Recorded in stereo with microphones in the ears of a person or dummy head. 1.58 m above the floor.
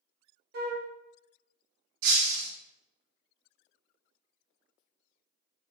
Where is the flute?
60° right (ahead or behind), 0.8 m.